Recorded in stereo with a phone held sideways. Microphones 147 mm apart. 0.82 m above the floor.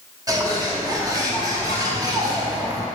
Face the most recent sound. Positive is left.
turn(degrees=-25)  # may be behind; listen again after turning